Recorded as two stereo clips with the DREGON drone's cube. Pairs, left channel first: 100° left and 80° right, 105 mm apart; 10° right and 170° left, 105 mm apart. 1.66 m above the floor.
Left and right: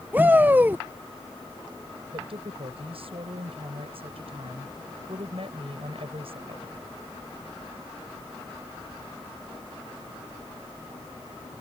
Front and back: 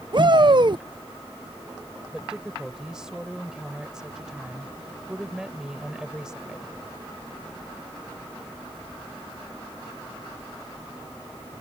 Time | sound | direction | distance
0.1 | a shout | 150° right | ?
2.1 | a woman speaking | 105° right | ?